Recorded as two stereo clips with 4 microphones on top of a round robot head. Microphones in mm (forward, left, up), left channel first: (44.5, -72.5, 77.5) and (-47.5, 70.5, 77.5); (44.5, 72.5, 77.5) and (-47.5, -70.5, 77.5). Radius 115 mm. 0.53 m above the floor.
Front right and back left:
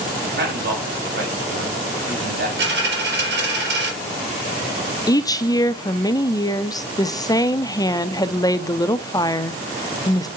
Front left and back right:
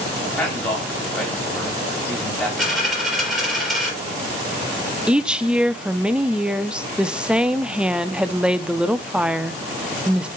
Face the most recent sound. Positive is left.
turn(degrees=-50)